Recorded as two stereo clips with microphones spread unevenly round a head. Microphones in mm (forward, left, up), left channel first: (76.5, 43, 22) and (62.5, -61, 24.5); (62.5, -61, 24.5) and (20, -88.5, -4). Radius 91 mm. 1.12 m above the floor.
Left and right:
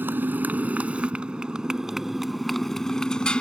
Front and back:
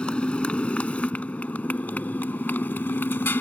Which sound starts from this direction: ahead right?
A motorcycle, at 0.0 s.